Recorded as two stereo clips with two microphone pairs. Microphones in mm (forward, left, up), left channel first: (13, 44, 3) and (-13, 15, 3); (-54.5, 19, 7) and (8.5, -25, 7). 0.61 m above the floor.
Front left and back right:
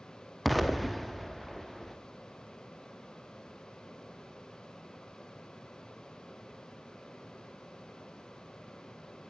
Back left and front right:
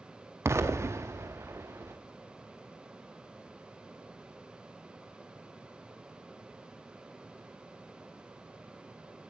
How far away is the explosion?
About 0.7 m.